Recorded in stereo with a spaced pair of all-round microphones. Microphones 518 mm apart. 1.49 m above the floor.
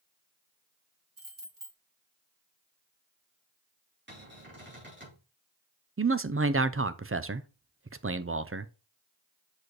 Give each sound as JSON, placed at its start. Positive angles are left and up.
{"t": 1.2, "sound": "keys jangling", "side_deg": -65, "distance_m": 1.9}
{"t": 4.1, "sound": "a cupboard door", "side_deg": -20, "distance_m": 3.5}
{"t": 6.0, "sound": "a man speaking", "side_deg": -25, "distance_m": 0.6}